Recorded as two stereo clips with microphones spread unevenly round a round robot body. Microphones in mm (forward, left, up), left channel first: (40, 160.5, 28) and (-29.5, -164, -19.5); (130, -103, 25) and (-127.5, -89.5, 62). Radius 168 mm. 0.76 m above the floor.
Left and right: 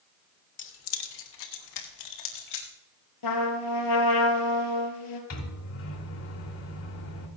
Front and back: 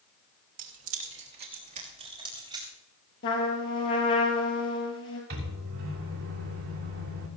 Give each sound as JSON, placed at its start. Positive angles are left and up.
{"t": 0.6, "sound": "keys jangling", "azimuth_deg": 135, "distance_m": 1.6}
{"t": 3.2, "sound": "a trumpet", "azimuth_deg": 55, "distance_m": 3.5}
{"t": 5.3, "sound": "a microwave", "azimuth_deg": 130, "distance_m": 3.0}